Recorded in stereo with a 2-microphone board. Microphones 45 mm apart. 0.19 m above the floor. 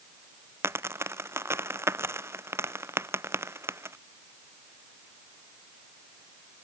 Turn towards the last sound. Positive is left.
turn(degrees=-75)  # may be behind; listen again after turning